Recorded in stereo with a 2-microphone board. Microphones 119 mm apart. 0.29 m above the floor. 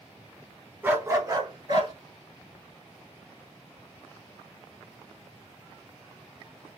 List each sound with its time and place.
0.8 s a dog barking: 15° right (ahead or behind), 0.6 m; by 1.9 s 45° right (ahead or behind), 1.3 m